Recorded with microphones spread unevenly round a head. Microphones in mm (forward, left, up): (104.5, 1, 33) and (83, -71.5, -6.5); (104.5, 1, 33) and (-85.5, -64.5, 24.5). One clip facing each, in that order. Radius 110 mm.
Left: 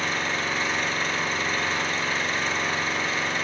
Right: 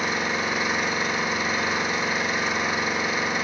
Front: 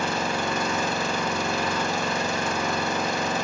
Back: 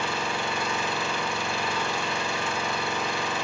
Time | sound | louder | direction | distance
0.0 | an engine running | right 2 dB, front 4 dB | 30° right | 1.6 m